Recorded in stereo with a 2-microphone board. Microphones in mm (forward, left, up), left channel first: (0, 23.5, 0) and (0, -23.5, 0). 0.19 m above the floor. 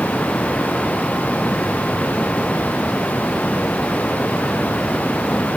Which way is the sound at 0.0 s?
35° left (ahead or behind).